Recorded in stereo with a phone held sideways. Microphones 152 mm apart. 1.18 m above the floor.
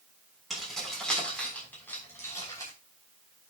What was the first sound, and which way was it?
Keys jangling, centre (ahead or behind).